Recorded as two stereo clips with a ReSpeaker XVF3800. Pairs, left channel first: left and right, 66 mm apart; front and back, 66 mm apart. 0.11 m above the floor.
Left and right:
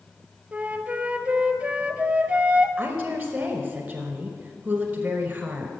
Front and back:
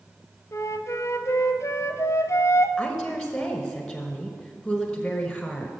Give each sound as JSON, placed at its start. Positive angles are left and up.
{"t": 0.5, "sound": "a flute", "azimuth_deg": -25, "distance_m": 0.7}
{"t": 2.8, "sound": "a woman speaking", "azimuth_deg": -80, "distance_m": 1.2}